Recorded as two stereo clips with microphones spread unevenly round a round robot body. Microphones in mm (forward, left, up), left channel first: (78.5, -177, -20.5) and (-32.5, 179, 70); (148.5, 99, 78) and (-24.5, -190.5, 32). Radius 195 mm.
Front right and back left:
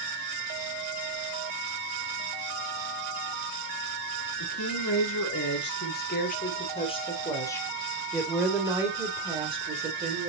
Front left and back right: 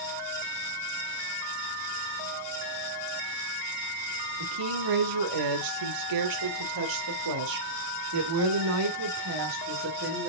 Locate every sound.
4.4 s a woman speaking: 120° right, 3 m; by 10.3 s straight behind, 3 m